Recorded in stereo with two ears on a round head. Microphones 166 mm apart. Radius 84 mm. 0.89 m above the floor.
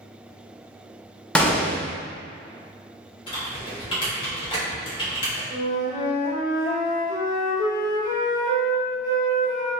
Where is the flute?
50° left (ahead or behind), 1.2 m.